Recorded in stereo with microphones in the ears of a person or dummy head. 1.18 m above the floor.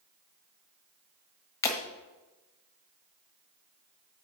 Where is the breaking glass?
15° left (ahead or behind), 1.4 m.